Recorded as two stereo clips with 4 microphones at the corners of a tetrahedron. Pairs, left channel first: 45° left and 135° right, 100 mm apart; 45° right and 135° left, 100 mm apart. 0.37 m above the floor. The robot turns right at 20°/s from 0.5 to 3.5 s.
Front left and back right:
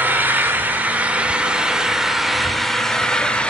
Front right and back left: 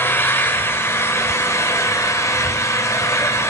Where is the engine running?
85° right, 1.1 m; by 3.5 s 25° right, 1.1 m.